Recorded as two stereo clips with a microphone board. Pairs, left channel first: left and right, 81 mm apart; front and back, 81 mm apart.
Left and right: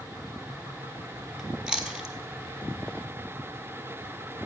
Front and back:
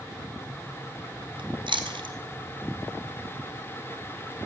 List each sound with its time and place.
1.4 s chewing: 170° right, 1.4 m